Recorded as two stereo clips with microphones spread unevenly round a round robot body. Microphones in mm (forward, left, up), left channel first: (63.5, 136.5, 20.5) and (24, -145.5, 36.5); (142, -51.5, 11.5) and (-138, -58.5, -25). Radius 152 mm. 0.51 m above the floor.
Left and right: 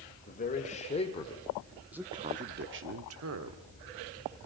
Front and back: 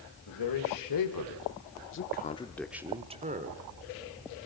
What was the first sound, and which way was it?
A man speaking, 25° left.